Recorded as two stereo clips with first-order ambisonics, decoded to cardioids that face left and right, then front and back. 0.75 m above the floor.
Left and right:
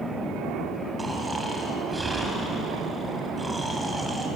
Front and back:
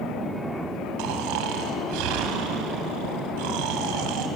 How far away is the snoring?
About 3 m.